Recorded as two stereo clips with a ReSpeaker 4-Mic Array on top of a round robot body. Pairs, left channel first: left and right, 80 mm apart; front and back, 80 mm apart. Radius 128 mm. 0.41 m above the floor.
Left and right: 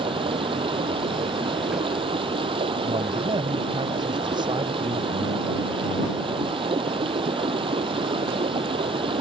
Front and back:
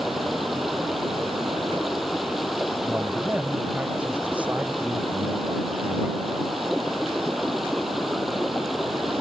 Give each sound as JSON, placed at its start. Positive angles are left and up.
{"t": 0.0, "sound": "running water", "azimuth_deg": -90}
{"t": 2.8, "sound": "a man speaking", "azimuth_deg": -105}